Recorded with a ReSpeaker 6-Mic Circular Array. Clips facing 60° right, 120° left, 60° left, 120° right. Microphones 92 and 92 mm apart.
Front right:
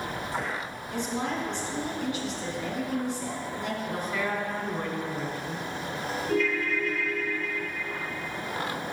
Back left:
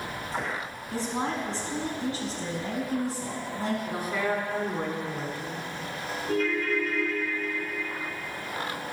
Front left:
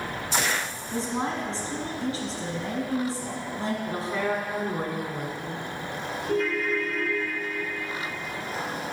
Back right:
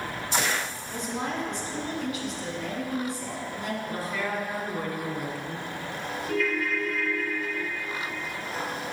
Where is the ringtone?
105° left, 1.1 m.